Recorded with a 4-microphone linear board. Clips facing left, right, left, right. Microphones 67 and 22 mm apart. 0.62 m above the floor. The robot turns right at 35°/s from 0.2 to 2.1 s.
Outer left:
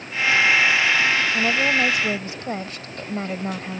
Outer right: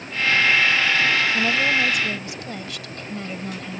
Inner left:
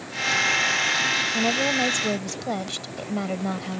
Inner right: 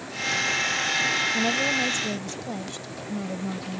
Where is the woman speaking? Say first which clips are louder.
Even, inner left 1 dB; 5° left (ahead or behind); by 3.8 s 35° left (ahead or behind).